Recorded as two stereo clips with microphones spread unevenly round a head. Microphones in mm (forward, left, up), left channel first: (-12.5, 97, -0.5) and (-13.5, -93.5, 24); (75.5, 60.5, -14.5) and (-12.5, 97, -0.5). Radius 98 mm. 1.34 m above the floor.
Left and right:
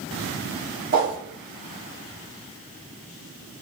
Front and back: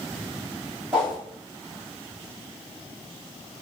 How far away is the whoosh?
About 1.3 m.